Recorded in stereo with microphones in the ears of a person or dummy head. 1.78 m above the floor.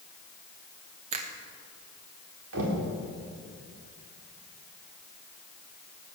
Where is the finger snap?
35° right (ahead or behind), 1.3 m.